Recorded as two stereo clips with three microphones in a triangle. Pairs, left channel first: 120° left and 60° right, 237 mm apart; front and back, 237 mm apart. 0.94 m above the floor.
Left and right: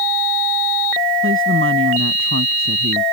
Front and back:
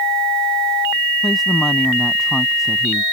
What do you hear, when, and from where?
1.2 s a woman speaking: 90° right